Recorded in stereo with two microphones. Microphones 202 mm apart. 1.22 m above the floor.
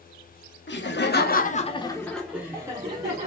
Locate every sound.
0.7 s laughter: 70° left (ahead or behind), 0.8 m; by 3.3 s 30° right (ahead or behind), 1.0 m